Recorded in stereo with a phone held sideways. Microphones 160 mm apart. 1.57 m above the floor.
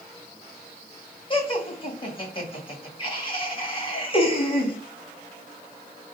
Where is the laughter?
30° left (ahead or behind), 2.5 m.